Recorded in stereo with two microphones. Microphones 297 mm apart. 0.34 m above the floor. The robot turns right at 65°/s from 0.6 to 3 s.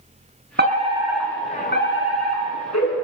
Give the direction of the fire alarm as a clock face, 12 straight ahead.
1 o'clock.